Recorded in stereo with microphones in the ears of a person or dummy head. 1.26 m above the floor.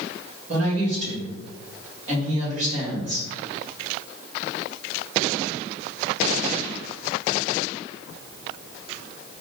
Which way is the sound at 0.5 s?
45° right (ahead or behind).